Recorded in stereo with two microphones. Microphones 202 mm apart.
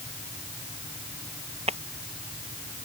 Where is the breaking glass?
30° right (ahead or behind).